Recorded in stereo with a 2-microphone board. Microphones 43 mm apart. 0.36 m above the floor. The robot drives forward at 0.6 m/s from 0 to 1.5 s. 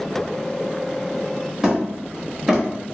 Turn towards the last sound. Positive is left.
turn(degrees=-10)  # may be behind; listen again after turning